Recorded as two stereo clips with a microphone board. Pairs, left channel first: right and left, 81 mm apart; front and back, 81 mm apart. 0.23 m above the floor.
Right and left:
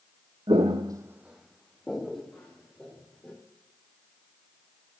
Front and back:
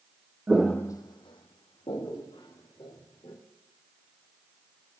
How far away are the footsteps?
About 0.6 m.